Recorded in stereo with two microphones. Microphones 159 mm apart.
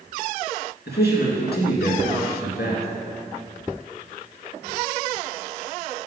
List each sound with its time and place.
0.9 s a man speaking: 80° left, 2 m